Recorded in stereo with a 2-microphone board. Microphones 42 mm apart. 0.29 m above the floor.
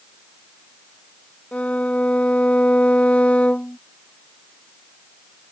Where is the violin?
30° left (ahead or behind).